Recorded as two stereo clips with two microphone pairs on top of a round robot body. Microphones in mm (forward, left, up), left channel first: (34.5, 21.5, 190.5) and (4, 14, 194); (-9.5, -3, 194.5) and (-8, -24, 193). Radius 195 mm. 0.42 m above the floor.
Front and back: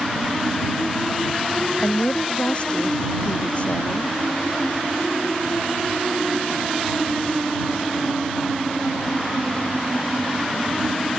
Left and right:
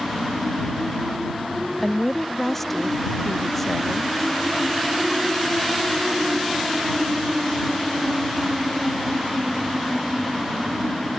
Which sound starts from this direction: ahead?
A woman speaking, at 1.8 s.